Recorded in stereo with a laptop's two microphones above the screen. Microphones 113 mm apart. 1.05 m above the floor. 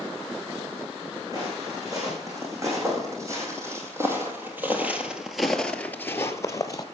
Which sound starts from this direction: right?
Footsteps, at 1.3 s.